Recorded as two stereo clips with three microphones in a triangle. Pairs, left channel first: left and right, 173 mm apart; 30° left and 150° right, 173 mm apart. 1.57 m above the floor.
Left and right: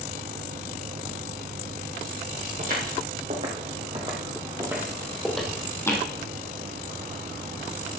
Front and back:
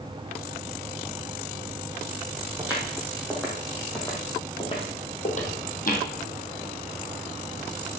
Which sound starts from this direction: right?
Footsteps, at 2.6 s.